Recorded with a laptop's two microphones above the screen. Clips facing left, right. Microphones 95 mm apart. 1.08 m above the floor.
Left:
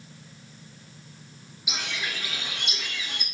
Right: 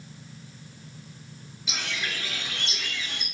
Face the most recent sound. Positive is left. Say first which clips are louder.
# even
turn(degrees=15)  # may be behind; listen again after turning